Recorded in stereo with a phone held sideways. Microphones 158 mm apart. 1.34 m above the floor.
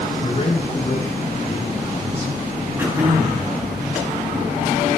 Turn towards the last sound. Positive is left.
turn(degrees=-15)  # may be behind; listen again after turning